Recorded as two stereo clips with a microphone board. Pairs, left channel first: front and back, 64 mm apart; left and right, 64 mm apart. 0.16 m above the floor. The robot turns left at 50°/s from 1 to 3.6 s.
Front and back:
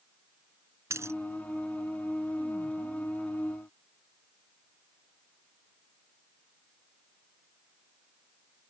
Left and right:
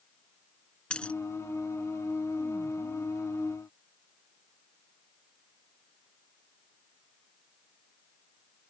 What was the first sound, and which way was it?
A dropped coin, 160° left.